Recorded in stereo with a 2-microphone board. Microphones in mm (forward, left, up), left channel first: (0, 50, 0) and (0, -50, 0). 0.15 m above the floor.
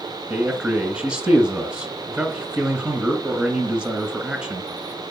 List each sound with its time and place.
0.3 s a man speaking: 15° right (ahead or behind), 1.5 m